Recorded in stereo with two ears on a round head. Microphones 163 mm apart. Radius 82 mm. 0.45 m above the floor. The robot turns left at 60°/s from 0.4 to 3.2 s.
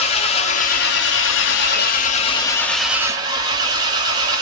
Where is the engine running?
145° left, 0.7 m; by 4.4 s 25° right, 0.7 m.